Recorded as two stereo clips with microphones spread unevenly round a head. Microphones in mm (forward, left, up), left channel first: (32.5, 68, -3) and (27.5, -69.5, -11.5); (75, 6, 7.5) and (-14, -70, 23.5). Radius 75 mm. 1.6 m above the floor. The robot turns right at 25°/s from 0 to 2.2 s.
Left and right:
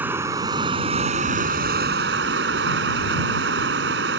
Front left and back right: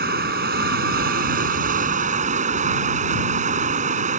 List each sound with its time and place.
0.0 s running water: 170° right; by 4.2 s 115° right